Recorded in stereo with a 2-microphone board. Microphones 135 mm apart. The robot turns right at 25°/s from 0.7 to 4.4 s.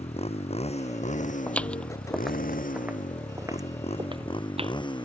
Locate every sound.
0.0 s a motorcycle: 50° left (ahead or behind); by 5.0 s 35° left (ahead or behind)
1.5 s footsteps: 10° left (ahead or behind); by 4.8 s 45° right (ahead or behind)